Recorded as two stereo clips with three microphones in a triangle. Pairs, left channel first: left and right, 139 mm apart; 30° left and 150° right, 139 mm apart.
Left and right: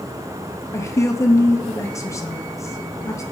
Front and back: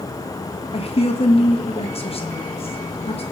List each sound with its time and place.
0.7 s a woman speaking: 30° left, 0.8 m